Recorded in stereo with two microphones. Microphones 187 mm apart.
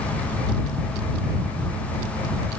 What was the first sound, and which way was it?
Only background noise.